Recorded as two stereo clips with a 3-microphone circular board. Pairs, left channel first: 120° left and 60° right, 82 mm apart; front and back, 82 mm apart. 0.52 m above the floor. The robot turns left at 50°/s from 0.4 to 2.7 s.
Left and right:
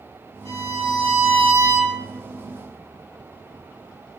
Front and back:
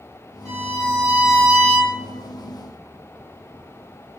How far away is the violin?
About 1.8 m.